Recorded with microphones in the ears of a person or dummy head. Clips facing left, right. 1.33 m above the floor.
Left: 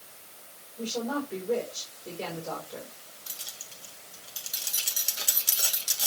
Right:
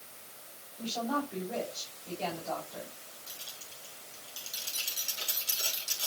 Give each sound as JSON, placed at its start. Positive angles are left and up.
{"t": 0.8, "sound": "a woman speaking", "side_deg": 85, "distance_m": 4.5}
{"t": 3.3, "sound": "keys jangling", "side_deg": 70, "distance_m": 1.9}